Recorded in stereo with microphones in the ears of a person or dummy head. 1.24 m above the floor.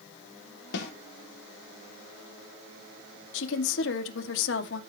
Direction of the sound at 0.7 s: 70° left (ahead or behind).